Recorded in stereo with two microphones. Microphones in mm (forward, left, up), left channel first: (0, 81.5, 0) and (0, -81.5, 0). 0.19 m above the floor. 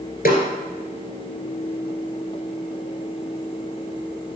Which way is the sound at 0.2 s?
65° left (ahead or behind).